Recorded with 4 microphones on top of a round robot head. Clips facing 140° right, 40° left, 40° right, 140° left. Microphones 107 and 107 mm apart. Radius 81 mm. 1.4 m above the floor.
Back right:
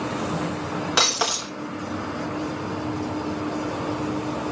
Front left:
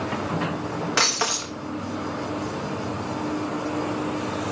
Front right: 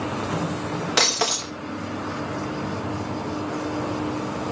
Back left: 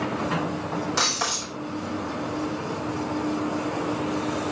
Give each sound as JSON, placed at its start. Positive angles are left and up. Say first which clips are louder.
{"t": 1.0, "sound": "breaking glass", "louder": "back right 2 dB, front right 3 dB", "azimuth_deg": -70, "distance_m": 0.9}